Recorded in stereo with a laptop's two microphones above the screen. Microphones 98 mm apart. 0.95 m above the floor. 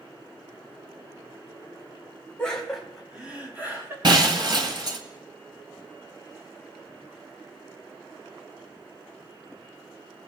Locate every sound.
2.4 s laughter: 10° left (ahead or behind), 1.8 m; by 3.9 s 25° right (ahead or behind), 2 m
4.0 s breaking glass: 50° right (ahead or behind), 1.3 m